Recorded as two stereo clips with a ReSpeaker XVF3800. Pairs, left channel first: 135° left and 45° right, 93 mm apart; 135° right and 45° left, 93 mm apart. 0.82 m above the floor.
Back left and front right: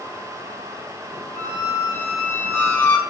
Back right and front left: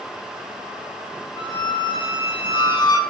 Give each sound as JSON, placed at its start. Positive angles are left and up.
{"t": 1.4, "sound": "a squeak", "azimuth_deg": -165, "distance_m": 0.5}